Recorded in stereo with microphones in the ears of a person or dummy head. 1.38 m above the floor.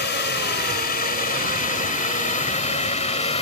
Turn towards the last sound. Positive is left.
turn(degrees=30)  # may be behind; listen again after turning